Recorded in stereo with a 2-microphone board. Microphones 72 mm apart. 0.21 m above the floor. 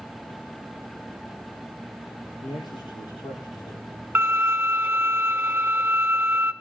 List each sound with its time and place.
2.4 s a man speaking: 75° left (ahead or behind), 5.5 m
4.2 s a violin: 20° right (ahead or behind), 0.9 m